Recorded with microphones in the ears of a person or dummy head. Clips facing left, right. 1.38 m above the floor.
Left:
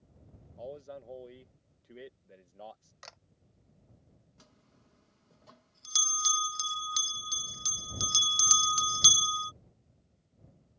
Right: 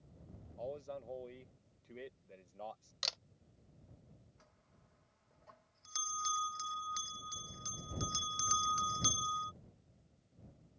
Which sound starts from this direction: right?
A camera shutter, at 3.0 s.